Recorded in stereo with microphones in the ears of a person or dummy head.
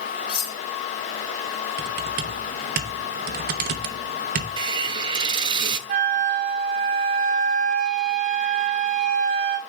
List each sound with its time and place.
0.3 s cutlery clinking: 55° left (ahead or behind), 3 m
1.8 s typing on a keyboard: 50° right (ahead or behind), 0.8 m
4.6 s a hiss: 30° right (ahead or behind), 0.9 m
5.9 s a flute: 40° right (ahead or behind), 1.1 m